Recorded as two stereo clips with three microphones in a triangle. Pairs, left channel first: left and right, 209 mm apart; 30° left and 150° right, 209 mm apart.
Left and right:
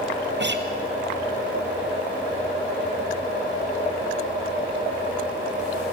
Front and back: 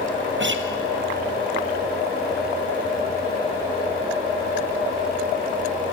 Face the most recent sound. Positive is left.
turn(degrees=-125)